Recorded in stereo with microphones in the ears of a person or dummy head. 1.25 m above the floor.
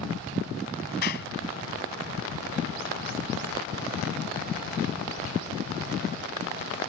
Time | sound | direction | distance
1.0 | a clap | 55° left (ahead or behind) | ?